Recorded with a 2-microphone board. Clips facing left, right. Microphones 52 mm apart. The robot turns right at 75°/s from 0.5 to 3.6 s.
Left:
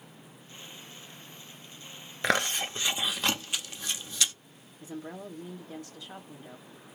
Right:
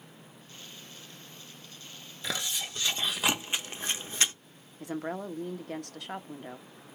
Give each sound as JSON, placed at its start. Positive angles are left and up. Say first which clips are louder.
{"t": 2.2, "sound": "chewing", "louder": "left 8 dB", "side_deg": 60, "distance_m": 0.7}
{"t": 4.8, "sound": "a woman speaking", "louder": "right 5 dB", "side_deg": -60, "distance_m": 0.9}